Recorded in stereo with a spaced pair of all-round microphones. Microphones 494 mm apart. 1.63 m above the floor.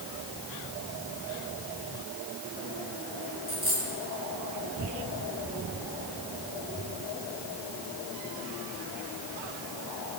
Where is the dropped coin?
50° right (ahead or behind), 9 m.